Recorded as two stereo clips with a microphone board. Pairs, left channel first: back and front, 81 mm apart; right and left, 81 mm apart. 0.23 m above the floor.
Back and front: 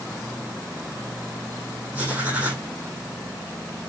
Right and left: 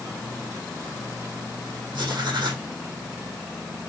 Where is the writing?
65° left, 2.5 m.